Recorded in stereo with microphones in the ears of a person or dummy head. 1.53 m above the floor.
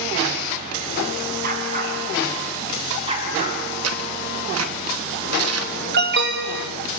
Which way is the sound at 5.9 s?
55° right (ahead or behind).